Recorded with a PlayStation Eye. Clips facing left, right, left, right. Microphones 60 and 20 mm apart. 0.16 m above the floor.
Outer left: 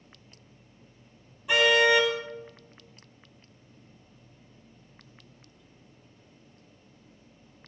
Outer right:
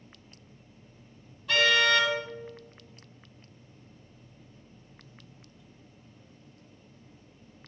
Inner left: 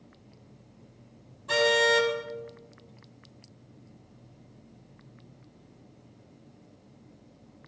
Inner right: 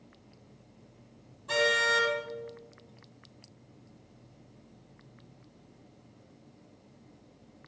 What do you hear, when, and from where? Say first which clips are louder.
1.5 s a car horn: outer left 3 dB, inner left 3 dB; 15° left (ahead or behind), 3 m